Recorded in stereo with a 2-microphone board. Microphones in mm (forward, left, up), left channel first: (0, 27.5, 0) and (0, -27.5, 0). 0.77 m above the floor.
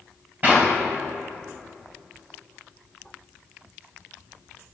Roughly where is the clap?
Right.